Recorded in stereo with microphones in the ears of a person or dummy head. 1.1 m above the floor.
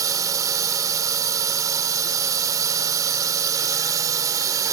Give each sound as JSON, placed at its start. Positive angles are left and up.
{"t": 0.0, "sound": "a drone", "side_deg": -15}